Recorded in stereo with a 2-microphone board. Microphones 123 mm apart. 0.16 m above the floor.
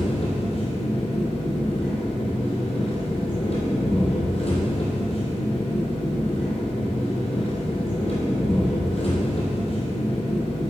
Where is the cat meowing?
No cat meowing in this recording.